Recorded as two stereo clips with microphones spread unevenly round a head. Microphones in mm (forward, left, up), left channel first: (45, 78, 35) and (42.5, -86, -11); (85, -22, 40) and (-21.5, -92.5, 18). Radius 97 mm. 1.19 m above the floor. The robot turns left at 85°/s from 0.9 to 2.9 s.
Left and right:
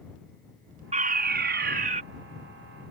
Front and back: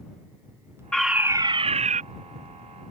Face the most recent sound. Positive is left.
turn(degrees=140)